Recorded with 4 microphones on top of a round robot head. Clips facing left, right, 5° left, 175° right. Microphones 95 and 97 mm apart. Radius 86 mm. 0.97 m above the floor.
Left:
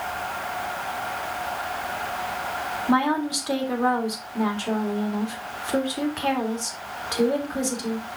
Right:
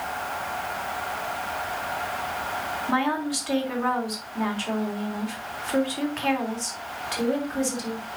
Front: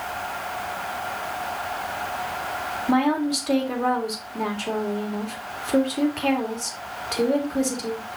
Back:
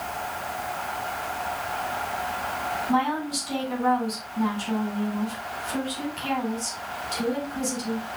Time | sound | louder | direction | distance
2.9 | a woman speaking | left 4 dB, front 5 dB | 25° left | 3 m